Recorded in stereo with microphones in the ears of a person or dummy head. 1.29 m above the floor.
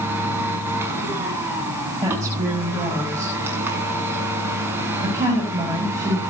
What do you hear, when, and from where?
0.0 s a machine running: 15° right (ahead or behind), 6 m
2.0 s a woman speaking: 20° right (ahead or behind), 7 m